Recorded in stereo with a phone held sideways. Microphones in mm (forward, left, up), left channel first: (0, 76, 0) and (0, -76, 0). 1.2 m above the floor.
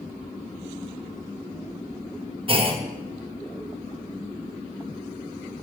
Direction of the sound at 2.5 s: 35° right (ahead or behind).